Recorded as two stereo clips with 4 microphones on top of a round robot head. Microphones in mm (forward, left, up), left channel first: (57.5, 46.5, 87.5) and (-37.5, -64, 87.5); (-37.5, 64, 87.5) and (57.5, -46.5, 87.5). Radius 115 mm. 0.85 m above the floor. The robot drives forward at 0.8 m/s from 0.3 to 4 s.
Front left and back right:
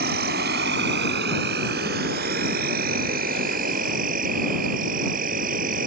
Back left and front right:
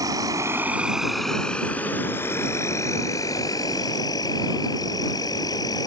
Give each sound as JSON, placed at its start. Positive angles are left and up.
{"t": 0.0, "sound": "an insect", "azimuth_deg": -120}